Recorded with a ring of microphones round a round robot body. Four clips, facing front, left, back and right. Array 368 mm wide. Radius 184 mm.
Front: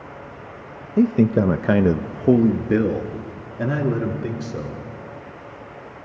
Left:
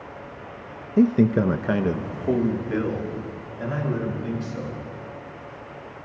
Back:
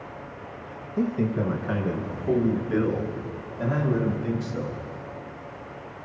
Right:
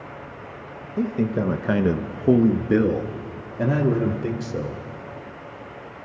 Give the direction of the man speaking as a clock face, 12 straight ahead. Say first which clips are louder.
Left 5 dB, front 9 dB; 11 o'clock.